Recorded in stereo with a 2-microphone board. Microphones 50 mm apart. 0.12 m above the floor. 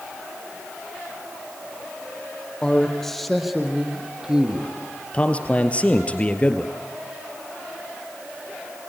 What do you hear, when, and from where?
2.6 s a man speaking: 15° left (ahead or behind), 2.5 m; by 4.7 s 20° right (ahead or behind), 3.5 m
5.1 s a man speaking: 25° left (ahead or behind), 2 m